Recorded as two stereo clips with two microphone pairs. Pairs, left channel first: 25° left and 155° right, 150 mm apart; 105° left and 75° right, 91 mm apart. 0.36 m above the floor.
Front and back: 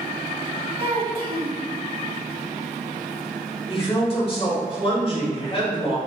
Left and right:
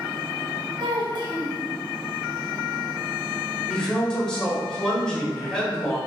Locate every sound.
0.8 s a child speaking: 110° right, 1.5 m
3.7 s a woman speaking: 35° left, 1.3 m